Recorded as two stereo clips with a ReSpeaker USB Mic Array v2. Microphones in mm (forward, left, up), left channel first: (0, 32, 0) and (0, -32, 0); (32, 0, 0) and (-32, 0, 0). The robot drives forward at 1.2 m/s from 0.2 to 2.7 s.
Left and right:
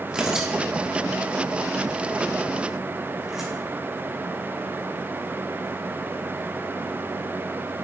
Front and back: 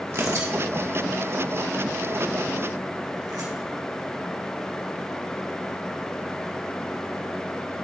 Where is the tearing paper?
165° right, 1.5 m; by 3.5 s 175° right, 4 m.